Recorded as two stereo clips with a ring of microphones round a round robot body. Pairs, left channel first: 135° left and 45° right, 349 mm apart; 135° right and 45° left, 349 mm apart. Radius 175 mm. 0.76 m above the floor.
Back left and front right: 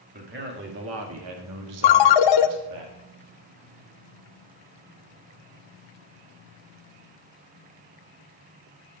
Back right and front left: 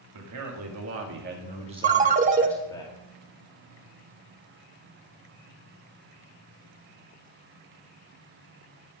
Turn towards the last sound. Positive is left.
turn(degrees=115)